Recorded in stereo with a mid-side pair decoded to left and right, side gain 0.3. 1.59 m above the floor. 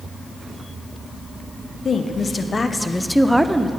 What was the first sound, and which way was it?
A woman speaking, 60° left.